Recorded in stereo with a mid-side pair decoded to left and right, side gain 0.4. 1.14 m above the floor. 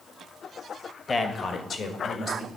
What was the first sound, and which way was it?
A man speaking, 40° left.